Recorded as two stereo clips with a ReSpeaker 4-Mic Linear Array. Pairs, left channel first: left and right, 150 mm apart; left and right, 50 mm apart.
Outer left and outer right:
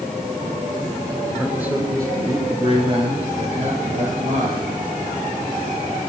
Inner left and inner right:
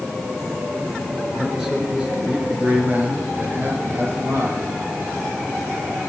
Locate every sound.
1.3 s a man speaking: 5° right (ahead or behind), 4 m; by 4.7 s 60° right (ahead or behind), 6 m